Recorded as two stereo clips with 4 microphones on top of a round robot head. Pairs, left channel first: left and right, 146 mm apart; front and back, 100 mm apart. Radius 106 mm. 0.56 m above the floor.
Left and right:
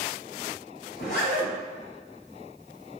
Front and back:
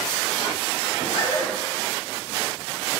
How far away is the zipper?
About 1.9 m.